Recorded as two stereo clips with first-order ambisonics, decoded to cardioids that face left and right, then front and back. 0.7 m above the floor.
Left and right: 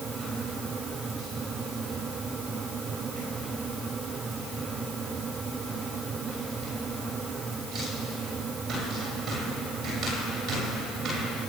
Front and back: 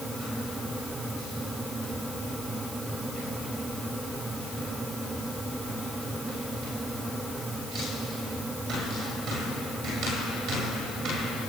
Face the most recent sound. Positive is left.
No sound to turn to.